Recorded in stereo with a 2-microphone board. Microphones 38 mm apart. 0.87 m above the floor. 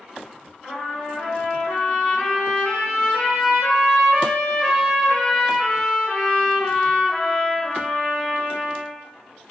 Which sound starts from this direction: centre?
A trumpet, at 0.6 s.